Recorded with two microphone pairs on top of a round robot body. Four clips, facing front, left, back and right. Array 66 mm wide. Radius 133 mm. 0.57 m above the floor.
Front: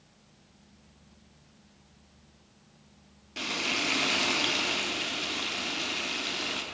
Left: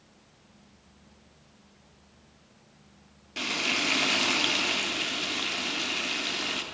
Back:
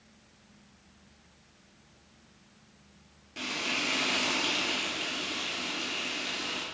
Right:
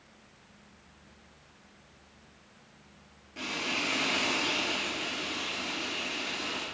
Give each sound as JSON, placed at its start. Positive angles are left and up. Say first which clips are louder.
{"t": 3.4, "sound": "frying", "louder": "left 4 dB, front 2 dB", "azimuth_deg": 80, "distance_m": 1.0}